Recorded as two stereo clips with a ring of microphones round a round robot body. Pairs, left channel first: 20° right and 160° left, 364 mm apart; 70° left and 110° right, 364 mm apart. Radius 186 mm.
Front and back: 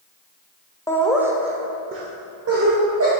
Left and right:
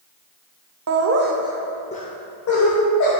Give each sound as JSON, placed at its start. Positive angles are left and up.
{"t": 0.9, "sound": "laughter", "azimuth_deg": -100, "distance_m": 1.1}